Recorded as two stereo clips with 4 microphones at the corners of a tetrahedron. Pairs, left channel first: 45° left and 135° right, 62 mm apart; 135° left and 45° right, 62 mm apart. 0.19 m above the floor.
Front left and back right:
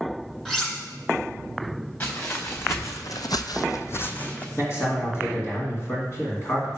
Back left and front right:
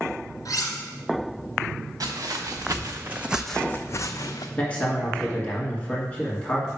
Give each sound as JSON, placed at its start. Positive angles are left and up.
{"t": 0.5, "sound": "cutlery clinking", "azimuth_deg": 130, "distance_m": 1.6}
{"t": 2.0, "sound": "footsteps", "azimuth_deg": -10, "distance_m": 1.4}
{"t": 4.6, "sound": "a man speaking", "azimuth_deg": 75, "distance_m": 2.0}